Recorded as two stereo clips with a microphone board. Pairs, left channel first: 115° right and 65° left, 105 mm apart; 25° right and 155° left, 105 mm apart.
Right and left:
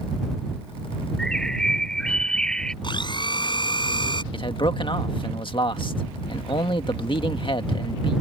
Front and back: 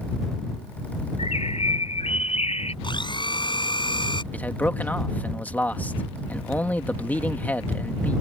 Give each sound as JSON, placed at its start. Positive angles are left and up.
{"t": 1.2, "sound": "a bird", "azimuth_deg": -30}
{"t": 2.8, "sound": "a blender", "azimuth_deg": -70}
{"t": 4.3, "sound": "a man speaking", "azimuth_deg": -95}